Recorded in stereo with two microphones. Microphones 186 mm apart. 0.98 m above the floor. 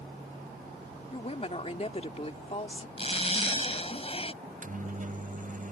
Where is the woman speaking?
35° left (ahead or behind).